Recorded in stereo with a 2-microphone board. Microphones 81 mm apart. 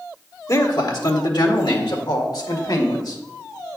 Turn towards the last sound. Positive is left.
turn(degrees=55)  # may be behind; listen again after turning